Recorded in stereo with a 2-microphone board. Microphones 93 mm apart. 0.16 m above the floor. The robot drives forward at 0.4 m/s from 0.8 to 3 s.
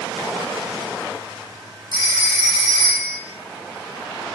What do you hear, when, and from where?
1.9 s a phone ringing: 55° right (ahead or behind), 3 m; by 3.2 s 60° right (ahead or behind), 2.5 m